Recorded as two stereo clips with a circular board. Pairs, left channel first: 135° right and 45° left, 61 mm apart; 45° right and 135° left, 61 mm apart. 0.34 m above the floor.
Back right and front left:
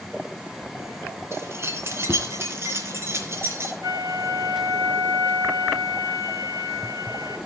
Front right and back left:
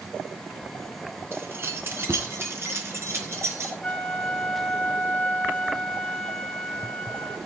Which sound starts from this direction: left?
Keys jangling, at 1.3 s.